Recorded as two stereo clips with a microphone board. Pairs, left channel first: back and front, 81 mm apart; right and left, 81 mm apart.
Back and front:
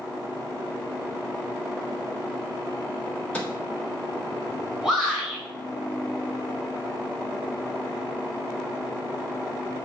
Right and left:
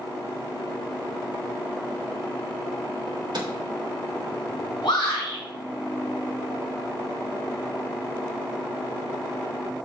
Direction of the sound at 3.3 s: 110° left.